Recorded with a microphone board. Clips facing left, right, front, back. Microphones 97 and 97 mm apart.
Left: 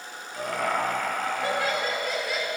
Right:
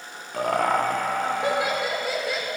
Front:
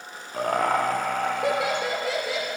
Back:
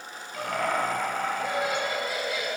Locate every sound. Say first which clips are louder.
0.3 s laughter: right 5 dB, front 5 dB; 55° right, 1.0 m; by 2.5 s 5° left, 1.5 m